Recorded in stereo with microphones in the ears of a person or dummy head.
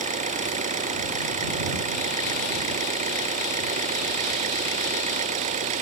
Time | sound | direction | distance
0.0 | an engine running | 40° right (ahead or behind) | ?